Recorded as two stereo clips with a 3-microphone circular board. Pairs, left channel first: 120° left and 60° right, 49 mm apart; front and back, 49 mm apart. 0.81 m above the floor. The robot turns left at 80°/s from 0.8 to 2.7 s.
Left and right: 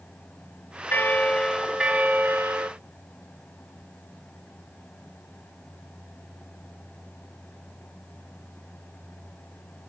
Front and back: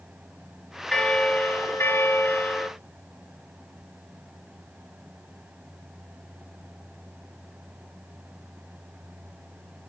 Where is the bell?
80° left, 1.5 m; by 2.7 s 60° right, 1.5 m.